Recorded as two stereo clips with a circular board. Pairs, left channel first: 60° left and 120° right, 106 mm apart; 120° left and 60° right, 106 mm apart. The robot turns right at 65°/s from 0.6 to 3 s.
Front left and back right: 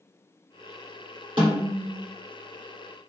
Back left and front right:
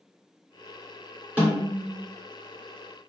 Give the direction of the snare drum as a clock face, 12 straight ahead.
5 o'clock.